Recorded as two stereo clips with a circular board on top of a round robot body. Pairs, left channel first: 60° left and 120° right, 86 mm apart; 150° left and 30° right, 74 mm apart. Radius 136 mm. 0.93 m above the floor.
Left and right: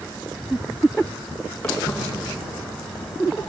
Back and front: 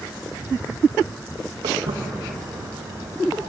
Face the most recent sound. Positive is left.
turn(degrees=-25)